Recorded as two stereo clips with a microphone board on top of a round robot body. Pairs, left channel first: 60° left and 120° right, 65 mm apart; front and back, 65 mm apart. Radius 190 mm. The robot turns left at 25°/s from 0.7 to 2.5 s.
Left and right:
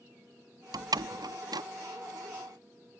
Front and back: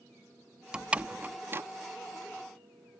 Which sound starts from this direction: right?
A door slam, at 0.7 s.